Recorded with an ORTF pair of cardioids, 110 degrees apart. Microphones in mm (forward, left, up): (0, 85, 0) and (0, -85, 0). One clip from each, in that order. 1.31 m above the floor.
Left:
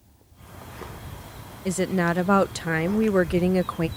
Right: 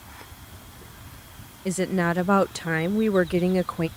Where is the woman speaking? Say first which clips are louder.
Left 1 dB; 5° left.